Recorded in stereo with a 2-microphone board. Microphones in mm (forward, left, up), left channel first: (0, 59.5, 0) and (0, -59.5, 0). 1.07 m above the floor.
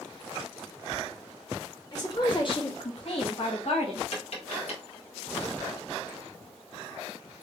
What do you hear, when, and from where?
1.9 s a woman speaking: 35° left (ahead or behind), 1.4 m; by 4.0 s 55° left (ahead or behind), 1.2 m
4.1 s tapping: 60° left (ahead or behind), 1.4 m